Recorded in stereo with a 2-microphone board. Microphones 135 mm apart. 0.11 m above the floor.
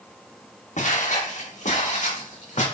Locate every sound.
0.8 s footsteps: 65° left (ahead or behind), 3.5 m; by 2.6 s 60° left (ahead or behind), 5.5 m